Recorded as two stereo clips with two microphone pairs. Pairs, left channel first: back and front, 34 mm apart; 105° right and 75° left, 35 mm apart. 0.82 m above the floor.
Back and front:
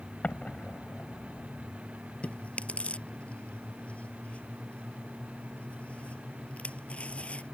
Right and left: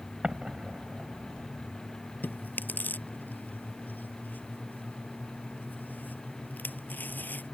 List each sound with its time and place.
0.2 s an explosion: 135° left
2.2 s chewing: 130° right